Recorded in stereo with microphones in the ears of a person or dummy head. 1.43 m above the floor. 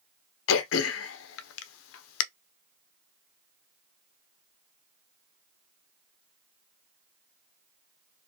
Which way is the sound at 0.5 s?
70° left (ahead or behind).